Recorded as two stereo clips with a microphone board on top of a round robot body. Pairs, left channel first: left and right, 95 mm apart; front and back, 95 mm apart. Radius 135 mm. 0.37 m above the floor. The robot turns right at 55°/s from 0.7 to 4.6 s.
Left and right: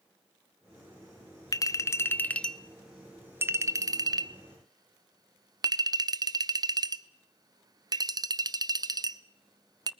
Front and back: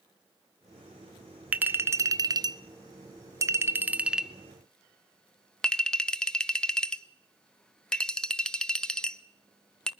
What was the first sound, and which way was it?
A clink, 115° left.